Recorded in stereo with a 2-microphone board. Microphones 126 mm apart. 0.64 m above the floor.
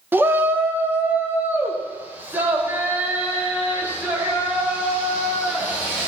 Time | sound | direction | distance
0.1 | a shout | 15° right (ahead or behind) | 0.7 m